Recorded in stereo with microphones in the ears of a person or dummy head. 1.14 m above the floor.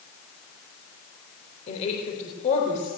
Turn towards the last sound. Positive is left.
turn(degrees=40)  # may be behind; listen again after turning